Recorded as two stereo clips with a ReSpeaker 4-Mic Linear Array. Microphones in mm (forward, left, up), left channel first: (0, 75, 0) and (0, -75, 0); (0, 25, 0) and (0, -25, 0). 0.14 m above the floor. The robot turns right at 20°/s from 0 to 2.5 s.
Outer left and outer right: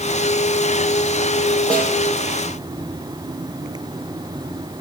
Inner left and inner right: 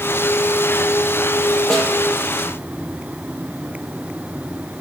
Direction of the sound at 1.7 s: 10° left (ahead or behind).